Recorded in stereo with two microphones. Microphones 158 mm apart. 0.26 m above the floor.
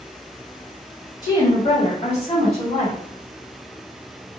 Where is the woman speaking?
25° left (ahead or behind), 1.4 m; by 3.0 s 45° left (ahead or behind), 1.7 m.